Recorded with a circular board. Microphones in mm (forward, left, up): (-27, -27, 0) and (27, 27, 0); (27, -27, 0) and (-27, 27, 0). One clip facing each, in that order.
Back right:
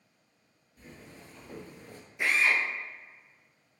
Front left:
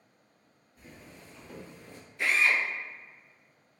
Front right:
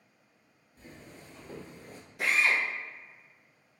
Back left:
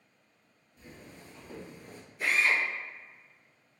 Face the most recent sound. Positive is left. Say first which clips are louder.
# even, even
turn(degrees=-60)